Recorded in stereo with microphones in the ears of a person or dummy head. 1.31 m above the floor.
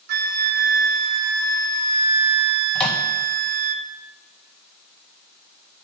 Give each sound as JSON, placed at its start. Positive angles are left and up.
{"t": 0.1, "sound": "a flute", "side_deg": -60, "distance_m": 0.6}
{"t": 2.8, "sound": "a microwave", "side_deg": 10, "distance_m": 0.9}